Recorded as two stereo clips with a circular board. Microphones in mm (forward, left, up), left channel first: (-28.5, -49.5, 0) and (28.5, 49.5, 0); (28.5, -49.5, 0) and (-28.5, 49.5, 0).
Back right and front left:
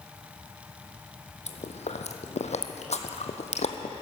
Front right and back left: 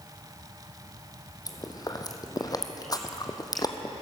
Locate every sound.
1.5 s chewing: 115° right, 1.0 m